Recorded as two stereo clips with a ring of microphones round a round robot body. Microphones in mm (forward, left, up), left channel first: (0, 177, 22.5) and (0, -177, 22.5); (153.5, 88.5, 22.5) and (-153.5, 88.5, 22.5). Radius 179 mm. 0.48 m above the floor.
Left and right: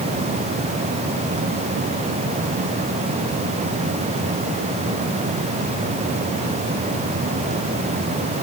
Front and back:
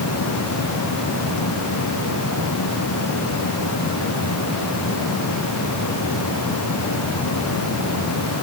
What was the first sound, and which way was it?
Only background noise.